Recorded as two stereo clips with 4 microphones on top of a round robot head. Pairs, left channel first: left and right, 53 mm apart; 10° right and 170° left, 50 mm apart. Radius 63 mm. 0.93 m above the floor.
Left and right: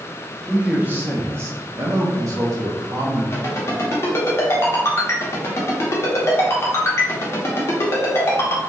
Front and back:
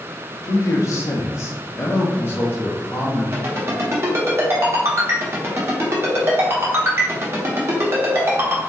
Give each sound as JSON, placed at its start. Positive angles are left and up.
{"t": 0.4, "sound": "a man speaking", "azimuth_deg": -10, "distance_m": 0.9}
{"t": 3.3, "sound": "a ringtone", "azimuth_deg": 130, "distance_m": 1.1}